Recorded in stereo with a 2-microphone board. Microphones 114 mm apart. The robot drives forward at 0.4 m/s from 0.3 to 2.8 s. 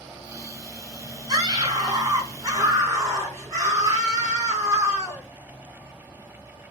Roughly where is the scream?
Right.